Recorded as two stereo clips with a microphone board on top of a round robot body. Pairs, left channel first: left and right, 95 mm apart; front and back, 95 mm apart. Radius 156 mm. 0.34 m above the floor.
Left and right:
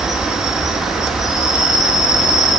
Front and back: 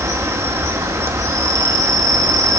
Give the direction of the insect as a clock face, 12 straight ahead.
6 o'clock.